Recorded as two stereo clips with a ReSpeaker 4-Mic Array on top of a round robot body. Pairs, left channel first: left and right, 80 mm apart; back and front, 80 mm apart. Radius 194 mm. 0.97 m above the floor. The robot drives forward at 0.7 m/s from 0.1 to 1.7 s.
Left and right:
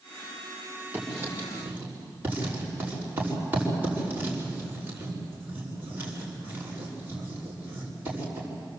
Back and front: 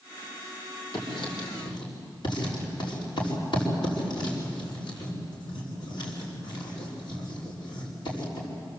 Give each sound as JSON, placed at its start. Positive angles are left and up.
{"t": 0.9, "sound": "writing", "azimuth_deg": -155, "distance_m": 5.0}